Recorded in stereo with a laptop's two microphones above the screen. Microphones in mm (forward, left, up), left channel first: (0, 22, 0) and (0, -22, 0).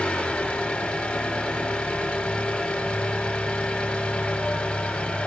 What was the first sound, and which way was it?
An engine running, 25° left (ahead or behind).